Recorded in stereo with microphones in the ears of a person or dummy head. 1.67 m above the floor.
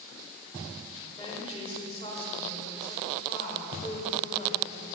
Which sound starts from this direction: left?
A woman speaking, at 1.2 s.